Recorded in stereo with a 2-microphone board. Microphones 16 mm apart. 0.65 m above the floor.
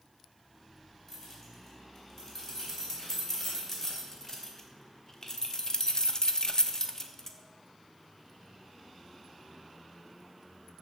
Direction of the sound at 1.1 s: 20° left (ahead or behind).